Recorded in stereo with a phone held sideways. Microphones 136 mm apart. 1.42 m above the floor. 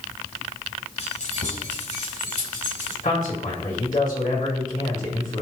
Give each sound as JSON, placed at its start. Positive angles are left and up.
{"t": 1.0, "sound": "keys jangling", "side_deg": 60, "distance_m": 5.0}
{"t": 3.0, "sound": "a man speaking", "side_deg": 90, "distance_m": 6.0}